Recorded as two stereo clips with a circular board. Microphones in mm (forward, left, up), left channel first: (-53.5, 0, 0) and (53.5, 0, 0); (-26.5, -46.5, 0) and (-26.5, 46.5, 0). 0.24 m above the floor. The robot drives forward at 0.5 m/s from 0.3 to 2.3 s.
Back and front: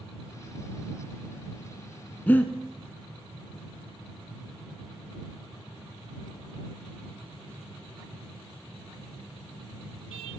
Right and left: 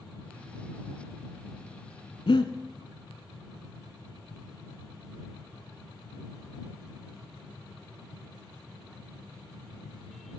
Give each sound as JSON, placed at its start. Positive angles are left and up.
{"t": 2.3, "sound": "breathing", "azimuth_deg": -105, "distance_m": 0.6}